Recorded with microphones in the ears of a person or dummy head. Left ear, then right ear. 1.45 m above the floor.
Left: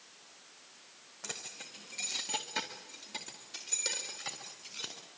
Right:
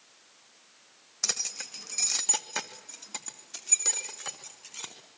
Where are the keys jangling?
65° right (ahead or behind), 1.3 m; by 4.9 s 30° right (ahead or behind), 4 m.